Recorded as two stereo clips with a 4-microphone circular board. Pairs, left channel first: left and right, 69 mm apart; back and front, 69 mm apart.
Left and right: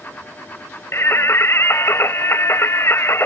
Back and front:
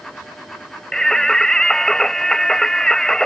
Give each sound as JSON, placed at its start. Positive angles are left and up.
{"t": 0.9, "sound": "singing", "azimuth_deg": 105}